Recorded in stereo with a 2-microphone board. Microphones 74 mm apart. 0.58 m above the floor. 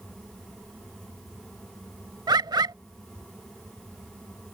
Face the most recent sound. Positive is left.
turn(degrees=-80)